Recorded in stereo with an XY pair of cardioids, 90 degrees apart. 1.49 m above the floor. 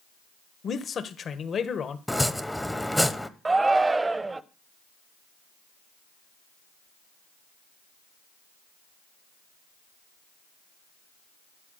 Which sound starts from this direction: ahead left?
A man speaking, at 0.6 s.